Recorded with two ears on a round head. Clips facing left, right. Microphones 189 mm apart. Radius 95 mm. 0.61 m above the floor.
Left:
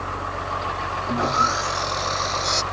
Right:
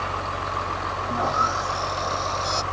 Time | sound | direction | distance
1.1 | sawing | 25° left (ahead or behind) | ?